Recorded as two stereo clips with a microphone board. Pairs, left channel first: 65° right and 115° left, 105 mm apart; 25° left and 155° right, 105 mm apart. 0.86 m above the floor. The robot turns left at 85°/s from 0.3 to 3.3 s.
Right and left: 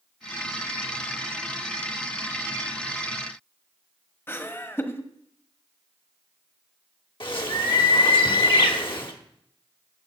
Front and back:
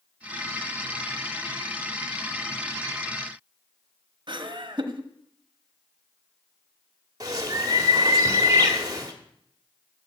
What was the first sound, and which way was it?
Laughter, 130° right.